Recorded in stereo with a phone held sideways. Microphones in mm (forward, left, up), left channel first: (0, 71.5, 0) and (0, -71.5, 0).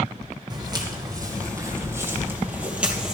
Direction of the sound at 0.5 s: 30° right (ahead or behind).